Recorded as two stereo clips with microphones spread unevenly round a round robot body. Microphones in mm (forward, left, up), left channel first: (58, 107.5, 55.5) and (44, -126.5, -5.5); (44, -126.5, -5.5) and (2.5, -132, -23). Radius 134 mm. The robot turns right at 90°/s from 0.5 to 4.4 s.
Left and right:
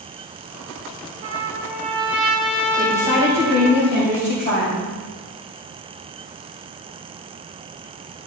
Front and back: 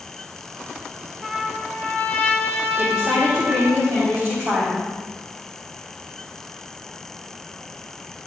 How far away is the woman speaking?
About 3.5 m.